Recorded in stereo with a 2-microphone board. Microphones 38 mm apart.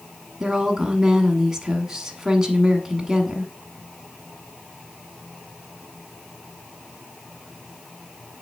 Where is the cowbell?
I don't hear a cowbell.